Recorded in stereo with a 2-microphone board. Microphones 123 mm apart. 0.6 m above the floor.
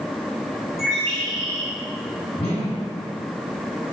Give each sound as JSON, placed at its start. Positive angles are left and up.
{"t": 0.8, "sound": "a bird", "side_deg": 25, "distance_m": 1.3}
{"t": 2.4, "sound": "a whoosh", "side_deg": 65, "distance_m": 1.7}